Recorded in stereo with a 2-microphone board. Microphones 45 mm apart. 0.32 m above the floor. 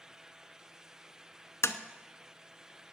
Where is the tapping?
80° left, 0.6 m.